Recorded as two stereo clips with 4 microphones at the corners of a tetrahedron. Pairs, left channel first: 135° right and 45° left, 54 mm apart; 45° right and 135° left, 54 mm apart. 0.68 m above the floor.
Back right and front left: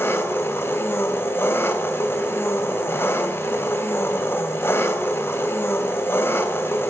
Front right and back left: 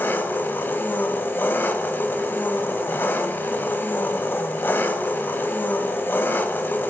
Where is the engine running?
95° right, 3 m.